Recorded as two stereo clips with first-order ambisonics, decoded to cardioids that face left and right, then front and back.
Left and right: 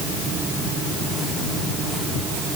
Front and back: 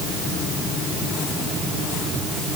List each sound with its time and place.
Only background noise.